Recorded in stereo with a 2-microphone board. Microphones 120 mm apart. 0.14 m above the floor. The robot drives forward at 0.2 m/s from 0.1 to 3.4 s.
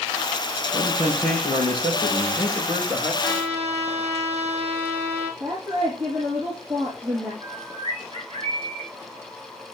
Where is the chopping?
I don't hear chopping.